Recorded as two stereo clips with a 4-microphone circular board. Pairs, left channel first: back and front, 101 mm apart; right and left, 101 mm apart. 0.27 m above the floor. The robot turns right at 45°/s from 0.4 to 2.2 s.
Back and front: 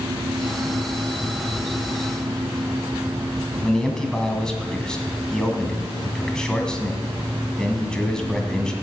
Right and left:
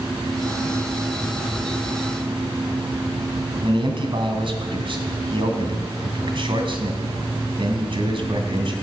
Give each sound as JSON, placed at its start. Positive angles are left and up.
{"t": 3.6, "sound": "a man speaking", "azimuth_deg": 100, "distance_m": 2.0}